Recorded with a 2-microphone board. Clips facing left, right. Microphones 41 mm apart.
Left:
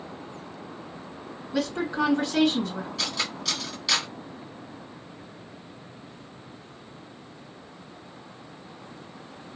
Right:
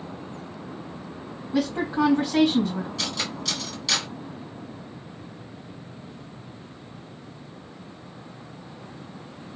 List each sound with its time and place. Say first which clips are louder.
1.5 s a woman speaking: right 3 dB; 15° right (ahead or behind), 2 m
3.0 s cutlery clinking: even; 5° left (ahead or behind), 1.6 m